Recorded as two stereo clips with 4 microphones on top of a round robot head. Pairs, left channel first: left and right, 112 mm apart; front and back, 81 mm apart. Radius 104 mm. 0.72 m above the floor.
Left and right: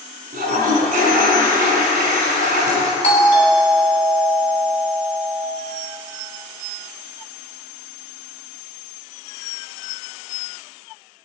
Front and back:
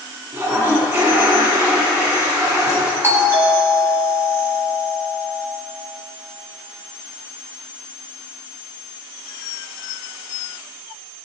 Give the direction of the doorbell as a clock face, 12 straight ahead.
8 o'clock.